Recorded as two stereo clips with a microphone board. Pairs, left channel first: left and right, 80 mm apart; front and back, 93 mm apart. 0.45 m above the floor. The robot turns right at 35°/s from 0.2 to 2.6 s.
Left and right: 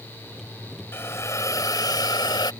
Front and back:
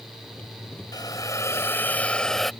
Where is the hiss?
35° left; by 2.5 s 90° left.